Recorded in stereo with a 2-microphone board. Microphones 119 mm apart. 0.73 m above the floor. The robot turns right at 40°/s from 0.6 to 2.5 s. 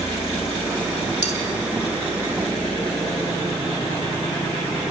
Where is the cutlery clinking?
75° left (ahead or behind), 1.8 m; by 1.4 s 70° left (ahead or behind), 1.8 m.